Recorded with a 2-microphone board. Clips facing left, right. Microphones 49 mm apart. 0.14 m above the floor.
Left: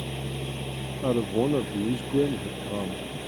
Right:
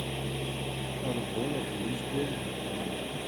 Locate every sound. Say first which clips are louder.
0.0 s an engine running: left 1 dB; 5° right (ahead or behind)
1.0 s a man speaking: left 9 dB; 50° left (ahead or behind)